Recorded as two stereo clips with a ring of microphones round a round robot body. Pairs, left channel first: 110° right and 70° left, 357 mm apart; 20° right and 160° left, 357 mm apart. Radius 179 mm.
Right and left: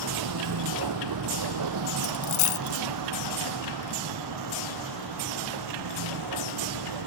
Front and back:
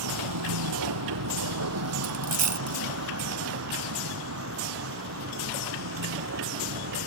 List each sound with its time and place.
0.0 s a vehicle: 110° left; by 7.1 s 100° left
2.0 s a dropped coin: 145° right